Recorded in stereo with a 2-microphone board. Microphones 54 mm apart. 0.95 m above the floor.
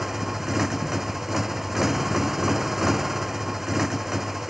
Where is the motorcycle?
Centre (ahead or behind).